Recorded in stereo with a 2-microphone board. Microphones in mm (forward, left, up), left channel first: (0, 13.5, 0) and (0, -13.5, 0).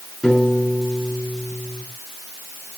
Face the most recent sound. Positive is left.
turn(degrees=15)  # may be behind; listen again after turning